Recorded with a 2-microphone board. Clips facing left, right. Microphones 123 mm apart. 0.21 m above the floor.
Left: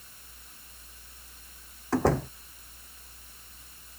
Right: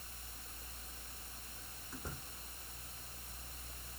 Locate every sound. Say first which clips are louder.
1.9 s a door slam: left 25 dB; 85° left